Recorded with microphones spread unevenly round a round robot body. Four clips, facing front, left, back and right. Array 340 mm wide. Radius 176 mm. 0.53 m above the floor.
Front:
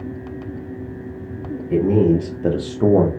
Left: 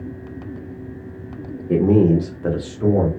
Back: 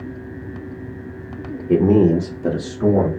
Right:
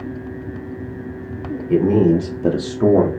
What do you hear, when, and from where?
1.7 s a man speaking: 155° left, 0.8 m; by 3.1 s 45° right, 1.0 m